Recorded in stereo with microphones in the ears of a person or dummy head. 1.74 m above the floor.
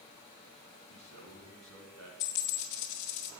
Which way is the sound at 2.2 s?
45° left (ahead or behind).